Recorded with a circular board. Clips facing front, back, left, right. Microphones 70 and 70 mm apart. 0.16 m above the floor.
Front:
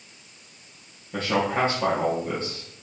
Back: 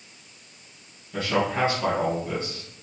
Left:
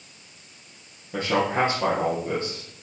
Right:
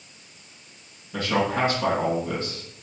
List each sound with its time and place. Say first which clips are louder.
1.1 s a man speaking: front 1 dB, left 1 dB; 55° left, 3 m